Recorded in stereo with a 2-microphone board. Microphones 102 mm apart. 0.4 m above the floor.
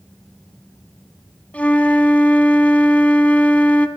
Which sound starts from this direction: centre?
A flute, at 1.5 s.